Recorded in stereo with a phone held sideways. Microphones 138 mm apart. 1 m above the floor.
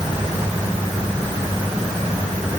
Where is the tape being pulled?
I don't hear tape being pulled.